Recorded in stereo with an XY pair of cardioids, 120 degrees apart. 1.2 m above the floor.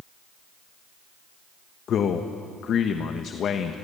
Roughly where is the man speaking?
Ahead left.